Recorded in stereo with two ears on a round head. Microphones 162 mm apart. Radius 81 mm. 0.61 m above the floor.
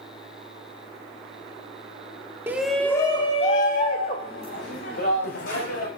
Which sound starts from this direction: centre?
A shout, at 2.5 s.